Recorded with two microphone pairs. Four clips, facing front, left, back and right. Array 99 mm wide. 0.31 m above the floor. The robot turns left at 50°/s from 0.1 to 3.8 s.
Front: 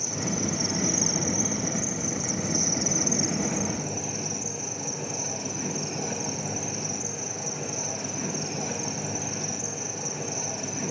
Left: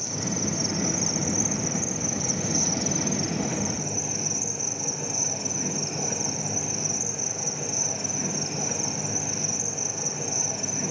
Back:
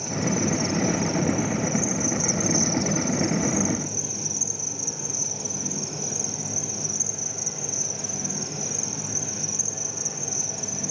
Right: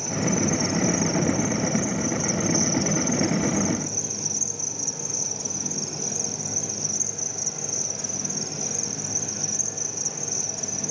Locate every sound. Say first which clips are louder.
0.0 s an insect: right 6 dB, back 5 dB; 125° right, 3 m; by 10.9 s 50° left, 3 m